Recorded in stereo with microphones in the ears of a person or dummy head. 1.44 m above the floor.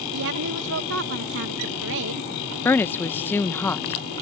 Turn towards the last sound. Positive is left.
turn(degrees=15)  # may be behind; listen again after turning